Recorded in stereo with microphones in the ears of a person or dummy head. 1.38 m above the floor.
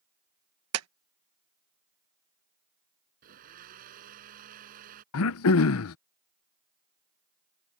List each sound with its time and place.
0.7 s a clap: 85° right
3.2 s a blender: 45° right (ahead or behind)
5.1 s throat clearing: 75° left (ahead or behind)